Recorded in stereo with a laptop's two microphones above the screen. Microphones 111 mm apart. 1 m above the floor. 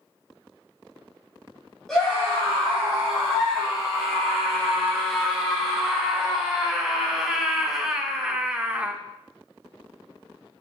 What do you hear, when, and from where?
1.9 s a scream: 5° left (ahead or behind), 5 m; by 8.9 s 15° right (ahead or behind), 0.8 m